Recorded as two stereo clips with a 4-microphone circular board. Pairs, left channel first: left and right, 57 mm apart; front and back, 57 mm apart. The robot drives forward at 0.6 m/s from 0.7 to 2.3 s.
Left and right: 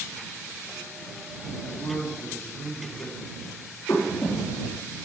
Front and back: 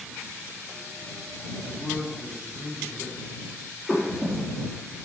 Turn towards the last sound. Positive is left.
turn(degrees=105)